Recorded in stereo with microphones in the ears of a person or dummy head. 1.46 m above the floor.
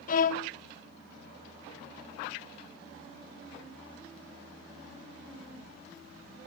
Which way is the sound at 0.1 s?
50° left (ahead or behind).